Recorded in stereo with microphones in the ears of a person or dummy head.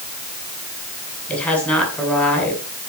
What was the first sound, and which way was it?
A woman speaking, 5° left (ahead or behind).